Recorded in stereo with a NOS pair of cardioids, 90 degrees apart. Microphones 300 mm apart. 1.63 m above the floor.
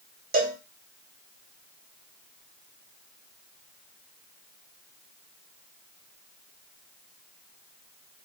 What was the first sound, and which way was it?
A cowbell, 30° right.